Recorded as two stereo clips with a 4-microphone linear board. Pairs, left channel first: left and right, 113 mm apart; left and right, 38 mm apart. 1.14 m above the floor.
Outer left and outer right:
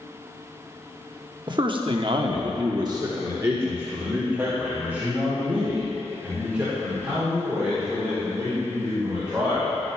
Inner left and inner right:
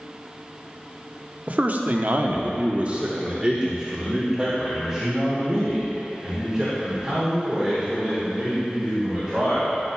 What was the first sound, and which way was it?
A man speaking, 45° right (ahead or behind).